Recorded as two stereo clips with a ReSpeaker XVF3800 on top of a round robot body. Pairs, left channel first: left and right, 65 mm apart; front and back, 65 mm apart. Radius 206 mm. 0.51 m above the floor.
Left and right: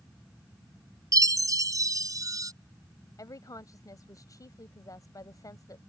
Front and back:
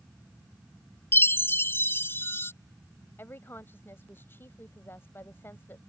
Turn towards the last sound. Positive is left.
turn(degrees=55)